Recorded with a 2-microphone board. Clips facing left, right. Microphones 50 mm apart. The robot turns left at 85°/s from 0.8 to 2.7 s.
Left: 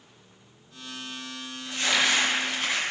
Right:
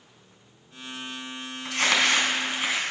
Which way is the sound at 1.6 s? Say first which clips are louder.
Right 2 dB; 90° right.